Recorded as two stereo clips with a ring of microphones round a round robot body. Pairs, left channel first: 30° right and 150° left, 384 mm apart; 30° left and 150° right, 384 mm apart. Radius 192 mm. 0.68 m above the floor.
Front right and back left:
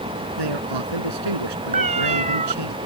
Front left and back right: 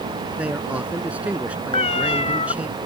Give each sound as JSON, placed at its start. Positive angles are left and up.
{"t": 0.4, "sound": "a man speaking", "azimuth_deg": 125}
{"t": 1.7, "sound": "a cat meowing", "azimuth_deg": 95}